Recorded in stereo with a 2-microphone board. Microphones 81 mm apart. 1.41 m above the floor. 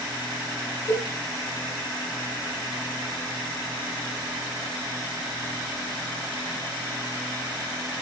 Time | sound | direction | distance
0.9 | a cowbell | 35° left (ahead or behind) | 6.5 m